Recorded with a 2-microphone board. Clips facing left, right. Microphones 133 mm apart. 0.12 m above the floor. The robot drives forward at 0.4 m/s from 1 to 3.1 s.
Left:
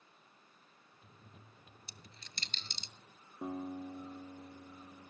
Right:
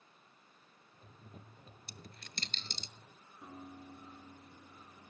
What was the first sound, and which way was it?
A dropped coin, 55° right (ahead or behind).